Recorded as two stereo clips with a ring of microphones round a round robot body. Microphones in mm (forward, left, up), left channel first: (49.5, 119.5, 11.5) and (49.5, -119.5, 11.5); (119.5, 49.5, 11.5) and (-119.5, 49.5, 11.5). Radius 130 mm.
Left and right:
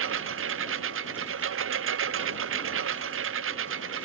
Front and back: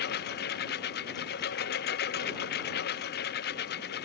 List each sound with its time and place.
0.0 s a lawn mower: 55° right